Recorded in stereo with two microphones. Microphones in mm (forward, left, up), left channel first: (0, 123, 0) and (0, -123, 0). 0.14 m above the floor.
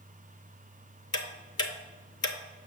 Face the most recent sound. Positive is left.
turn(degrees=70)  # may be behind; listen again after turning